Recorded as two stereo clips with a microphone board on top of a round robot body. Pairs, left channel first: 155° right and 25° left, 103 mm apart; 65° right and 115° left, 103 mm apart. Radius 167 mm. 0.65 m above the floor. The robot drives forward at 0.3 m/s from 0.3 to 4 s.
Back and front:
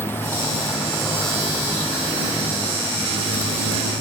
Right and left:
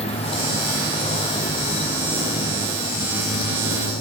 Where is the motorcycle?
90° right; by 4.0 s 85° right.